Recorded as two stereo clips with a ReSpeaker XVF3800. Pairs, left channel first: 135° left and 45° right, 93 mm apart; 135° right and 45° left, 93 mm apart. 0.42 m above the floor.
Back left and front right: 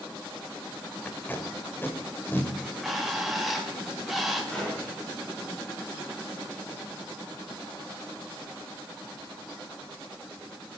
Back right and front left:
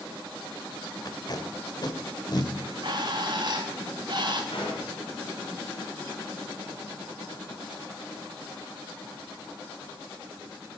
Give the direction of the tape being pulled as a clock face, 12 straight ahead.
5 o'clock.